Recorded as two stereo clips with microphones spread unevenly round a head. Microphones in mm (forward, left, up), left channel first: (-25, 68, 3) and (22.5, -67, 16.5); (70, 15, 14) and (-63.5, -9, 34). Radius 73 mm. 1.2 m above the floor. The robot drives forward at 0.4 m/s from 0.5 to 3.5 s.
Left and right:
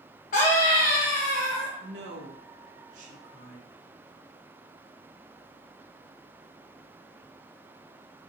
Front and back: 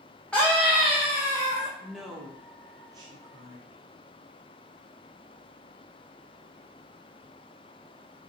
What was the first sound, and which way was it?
A scream, 85° left.